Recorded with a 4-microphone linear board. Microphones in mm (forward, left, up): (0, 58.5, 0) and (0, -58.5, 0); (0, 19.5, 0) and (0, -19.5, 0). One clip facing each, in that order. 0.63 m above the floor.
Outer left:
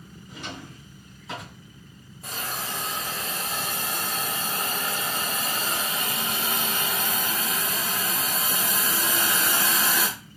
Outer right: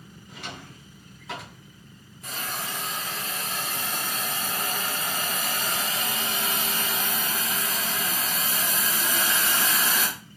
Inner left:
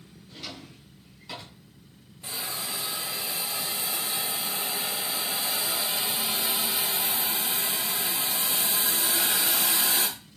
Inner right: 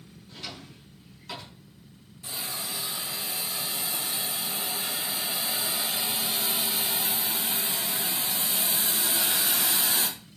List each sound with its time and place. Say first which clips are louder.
0.3 s a drawer: outer left 2 dB, even; centre (ahead or behind), 2.0 m
2.2 s a hiss: outer left 1 dB, inner left 1 dB; 30° left (ahead or behind), 2 m